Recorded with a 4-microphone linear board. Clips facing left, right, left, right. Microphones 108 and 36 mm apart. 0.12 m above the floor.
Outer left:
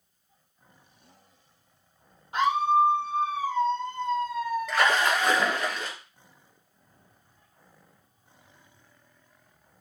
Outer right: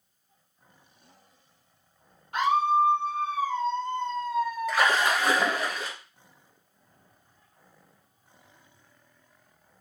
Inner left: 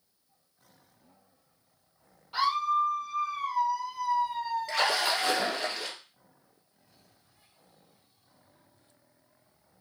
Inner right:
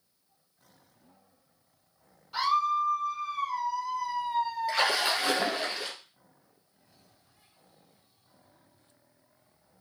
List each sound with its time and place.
2.3 s a scream: 20° left (ahead or behind), 2.5 m; by 5.7 s 20° right (ahead or behind), 1.3 m
4.7 s a splash: 10° right (ahead or behind), 1.2 m